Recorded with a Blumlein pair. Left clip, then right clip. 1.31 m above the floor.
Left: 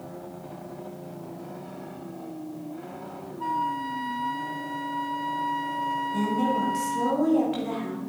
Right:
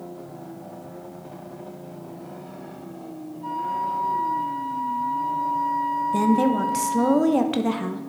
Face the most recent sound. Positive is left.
turn(degrees=-30)